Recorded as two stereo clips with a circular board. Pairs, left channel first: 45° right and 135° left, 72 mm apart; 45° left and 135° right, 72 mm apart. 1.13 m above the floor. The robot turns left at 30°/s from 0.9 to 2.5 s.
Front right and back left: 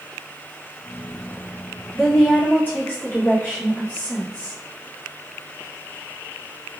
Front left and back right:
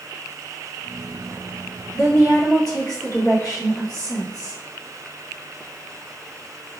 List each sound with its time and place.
1.9 s a woman speaking: 35° left, 2.0 m; by 4.6 s 15° left, 2.0 m